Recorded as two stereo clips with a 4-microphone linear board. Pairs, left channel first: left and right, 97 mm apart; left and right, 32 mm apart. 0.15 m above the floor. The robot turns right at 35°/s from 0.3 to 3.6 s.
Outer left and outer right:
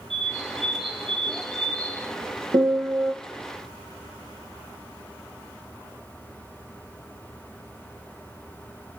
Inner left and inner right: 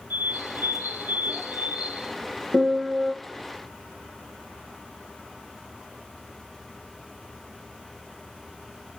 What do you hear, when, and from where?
0.1 s a bird: 100° right, 5 m; by 2.1 s 35° right, 5 m
2.5 s a piano: 50° right (ahead or behind), 3 m; by 3.1 s 35° right (ahead or behind), 3 m